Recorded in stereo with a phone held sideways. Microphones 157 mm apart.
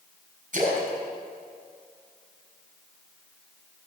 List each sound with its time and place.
0.5 s a splash: 55° right (ahead or behind), 4 m